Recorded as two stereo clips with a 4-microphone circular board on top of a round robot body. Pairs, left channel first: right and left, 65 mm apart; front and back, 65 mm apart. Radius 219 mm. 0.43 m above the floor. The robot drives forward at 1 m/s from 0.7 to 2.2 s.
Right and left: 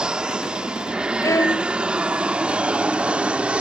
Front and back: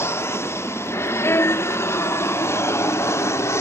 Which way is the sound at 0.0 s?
20° left.